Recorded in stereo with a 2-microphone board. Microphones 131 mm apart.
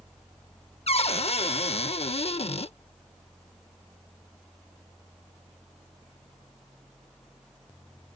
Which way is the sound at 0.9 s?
50° left (ahead or behind).